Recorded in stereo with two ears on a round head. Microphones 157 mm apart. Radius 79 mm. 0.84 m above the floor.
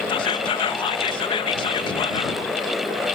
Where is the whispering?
25° left (ahead or behind).